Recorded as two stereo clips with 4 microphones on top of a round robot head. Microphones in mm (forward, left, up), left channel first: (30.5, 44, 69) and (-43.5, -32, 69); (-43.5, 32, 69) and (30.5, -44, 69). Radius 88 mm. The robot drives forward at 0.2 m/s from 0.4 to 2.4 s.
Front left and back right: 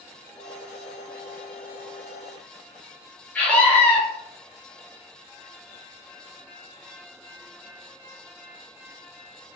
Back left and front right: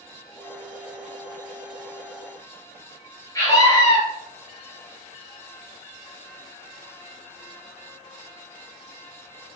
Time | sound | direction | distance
3.4 | a scream | 110° left | 0.9 m